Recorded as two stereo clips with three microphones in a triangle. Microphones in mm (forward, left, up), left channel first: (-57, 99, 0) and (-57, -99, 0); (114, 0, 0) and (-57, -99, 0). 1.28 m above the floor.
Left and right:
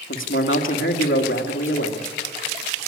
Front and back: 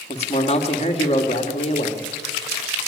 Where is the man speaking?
85° left, 2 m.